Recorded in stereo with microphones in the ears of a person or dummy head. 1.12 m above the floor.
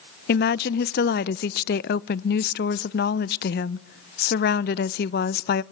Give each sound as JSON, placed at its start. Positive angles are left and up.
{"t": 0.3, "sound": "a woman speaking", "side_deg": 40, "distance_m": 0.5}